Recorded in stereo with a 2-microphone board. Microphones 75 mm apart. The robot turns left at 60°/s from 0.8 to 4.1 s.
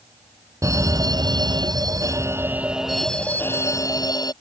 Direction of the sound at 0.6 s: 50° right.